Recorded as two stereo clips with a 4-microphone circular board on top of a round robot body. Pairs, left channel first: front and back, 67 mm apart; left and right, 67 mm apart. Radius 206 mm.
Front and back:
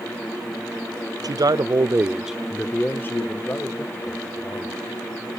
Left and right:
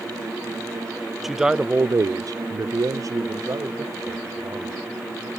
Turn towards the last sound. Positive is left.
turn(degrees=-40)